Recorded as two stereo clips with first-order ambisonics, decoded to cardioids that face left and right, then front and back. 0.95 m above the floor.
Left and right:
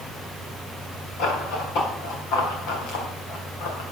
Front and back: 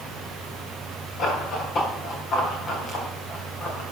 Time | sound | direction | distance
1.2 | running footsteps | 55° left | 6.5 m